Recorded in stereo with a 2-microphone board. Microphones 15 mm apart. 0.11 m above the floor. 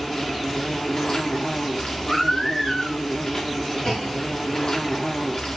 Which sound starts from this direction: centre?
A baby crying, at 2.1 s.